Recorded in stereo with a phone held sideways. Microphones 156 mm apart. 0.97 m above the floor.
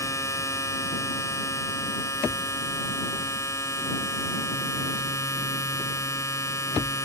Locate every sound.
0.0 s a machine running: 20° left (ahead or behind)